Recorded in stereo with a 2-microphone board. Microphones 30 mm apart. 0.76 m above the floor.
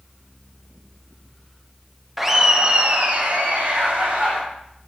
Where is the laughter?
5° right (ahead or behind), 0.6 m; by 4.4 s 70° right (ahead or behind), 1.5 m.